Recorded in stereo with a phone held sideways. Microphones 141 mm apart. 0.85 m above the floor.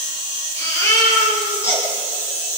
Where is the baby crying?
20° left (ahead or behind), 6.5 m.